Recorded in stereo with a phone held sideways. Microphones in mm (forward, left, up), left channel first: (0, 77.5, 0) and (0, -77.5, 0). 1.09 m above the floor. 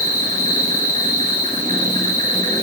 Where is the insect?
55° right (ahead or behind), 7.5 m.